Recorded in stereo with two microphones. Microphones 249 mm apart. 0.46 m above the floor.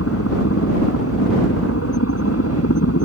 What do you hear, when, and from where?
0.0 s a helicopter: 70° left (ahead or behind)